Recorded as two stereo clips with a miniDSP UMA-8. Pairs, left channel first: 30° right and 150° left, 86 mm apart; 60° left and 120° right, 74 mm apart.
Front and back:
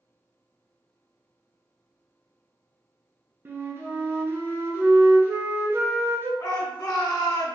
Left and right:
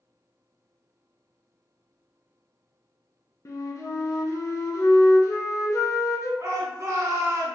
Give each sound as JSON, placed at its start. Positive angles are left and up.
{"t": 3.5, "sound": "a flute", "azimuth_deg": 95, "distance_m": 0.6}
{"t": 6.4, "sound": "a shout", "azimuth_deg": -75, "distance_m": 0.9}